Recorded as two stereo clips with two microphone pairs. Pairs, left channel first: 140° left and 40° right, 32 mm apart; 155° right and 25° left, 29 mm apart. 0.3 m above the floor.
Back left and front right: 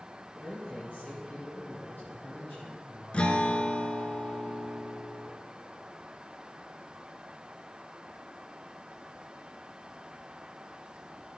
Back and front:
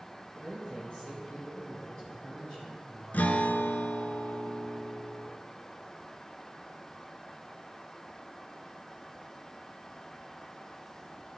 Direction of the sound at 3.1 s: 170° right.